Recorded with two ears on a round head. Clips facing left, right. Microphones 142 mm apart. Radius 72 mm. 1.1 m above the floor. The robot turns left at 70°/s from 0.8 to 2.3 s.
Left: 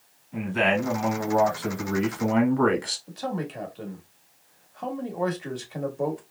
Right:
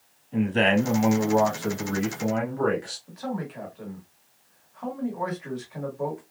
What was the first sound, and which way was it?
A man speaking, 140° right.